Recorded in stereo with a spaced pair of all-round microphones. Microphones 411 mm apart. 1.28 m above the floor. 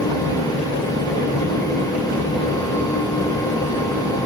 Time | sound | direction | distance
0.0 | a fan | 10° left (ahead or behind) | 1.6 m